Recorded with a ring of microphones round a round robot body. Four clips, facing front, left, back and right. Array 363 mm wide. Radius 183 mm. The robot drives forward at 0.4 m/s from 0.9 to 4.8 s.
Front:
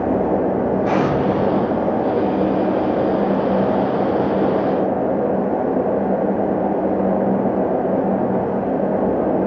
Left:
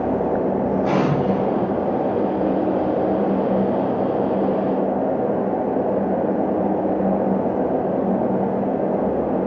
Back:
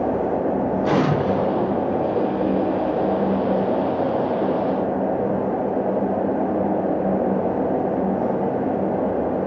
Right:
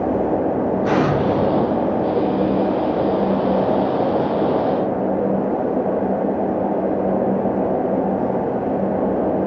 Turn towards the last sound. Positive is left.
turn(degrees=-165)